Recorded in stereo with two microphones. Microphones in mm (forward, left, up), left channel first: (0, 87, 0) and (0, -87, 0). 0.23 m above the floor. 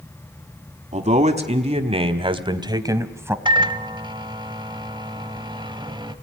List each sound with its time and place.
0.9 s a man speaking: 40° right (ahead or behind), 1.6 m; by 3.4 s 15° right (ahead or behind), 1.3 m
3.5 s a microwave: 25° right (ahead or behind), 0.9 m